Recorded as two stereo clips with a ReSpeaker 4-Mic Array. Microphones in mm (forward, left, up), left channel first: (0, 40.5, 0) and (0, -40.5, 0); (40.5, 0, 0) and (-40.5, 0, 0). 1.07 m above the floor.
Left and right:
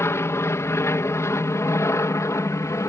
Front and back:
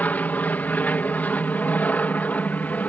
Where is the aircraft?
60° left.